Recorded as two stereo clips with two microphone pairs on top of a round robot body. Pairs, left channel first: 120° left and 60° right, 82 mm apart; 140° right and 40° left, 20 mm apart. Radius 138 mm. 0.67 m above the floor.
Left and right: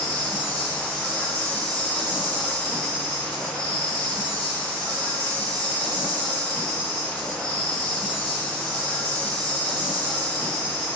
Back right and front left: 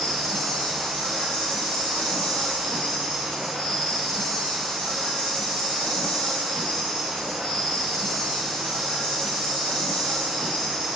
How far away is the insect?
About 5 m.